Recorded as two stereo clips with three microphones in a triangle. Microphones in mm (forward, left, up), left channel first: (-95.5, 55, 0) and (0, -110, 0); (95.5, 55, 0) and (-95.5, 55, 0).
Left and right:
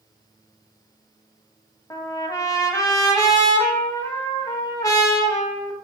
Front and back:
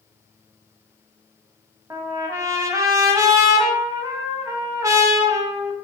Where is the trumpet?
145° left, 0.5 m.